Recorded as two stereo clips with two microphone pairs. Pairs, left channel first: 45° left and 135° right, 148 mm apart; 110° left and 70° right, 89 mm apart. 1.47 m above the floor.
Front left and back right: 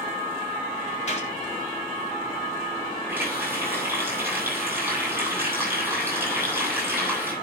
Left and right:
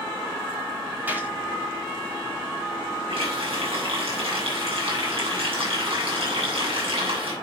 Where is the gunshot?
Straight ahead, 4 m.